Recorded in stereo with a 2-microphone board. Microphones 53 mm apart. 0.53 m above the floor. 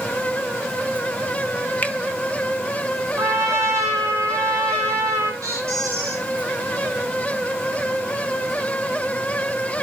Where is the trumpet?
65° right (ahead or behind), 2.5 m.